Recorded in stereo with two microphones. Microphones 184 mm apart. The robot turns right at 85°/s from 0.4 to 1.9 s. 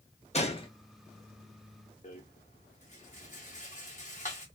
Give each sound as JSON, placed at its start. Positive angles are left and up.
{"t": 0.3, "sound": "a gunshot", "side_deg": 35, "distance_m": 0.9}
{"t": 2.0, "sound": "a rattle", "side_deg": 40, "distance_m": 1.3}